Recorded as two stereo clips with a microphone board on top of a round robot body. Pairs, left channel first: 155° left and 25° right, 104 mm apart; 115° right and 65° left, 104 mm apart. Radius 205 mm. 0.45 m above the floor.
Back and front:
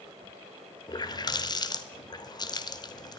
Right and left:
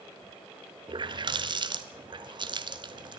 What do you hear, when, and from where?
0.9 s a running tap: 110° left, 1.3 m